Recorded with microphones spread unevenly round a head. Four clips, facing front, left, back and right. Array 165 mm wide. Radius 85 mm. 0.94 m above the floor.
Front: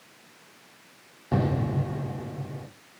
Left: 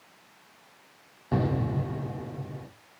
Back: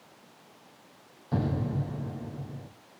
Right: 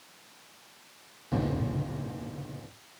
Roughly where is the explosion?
Ahead left.